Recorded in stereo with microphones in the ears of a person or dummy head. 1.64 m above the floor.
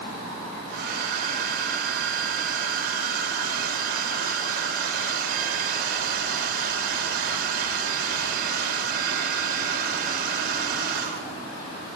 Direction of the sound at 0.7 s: 60° right (ahead or behind).